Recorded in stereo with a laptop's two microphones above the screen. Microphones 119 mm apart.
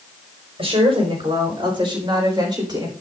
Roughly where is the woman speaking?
Right.